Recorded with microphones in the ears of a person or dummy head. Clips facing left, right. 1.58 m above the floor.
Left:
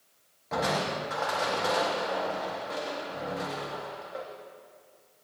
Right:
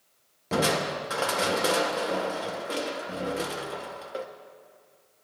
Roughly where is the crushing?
Right.